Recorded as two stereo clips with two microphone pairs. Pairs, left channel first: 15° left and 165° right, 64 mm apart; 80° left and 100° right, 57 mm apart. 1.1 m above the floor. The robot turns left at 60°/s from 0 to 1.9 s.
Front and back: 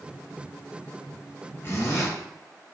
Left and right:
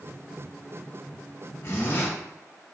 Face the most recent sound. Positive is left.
turn(degrees=40)